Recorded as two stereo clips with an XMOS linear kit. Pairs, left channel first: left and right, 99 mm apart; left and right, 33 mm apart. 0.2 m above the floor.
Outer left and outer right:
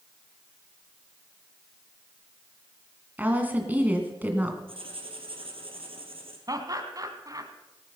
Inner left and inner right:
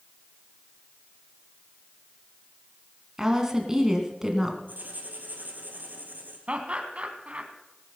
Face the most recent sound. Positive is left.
turn(degrees=-35)  # may be behind; listen again after turning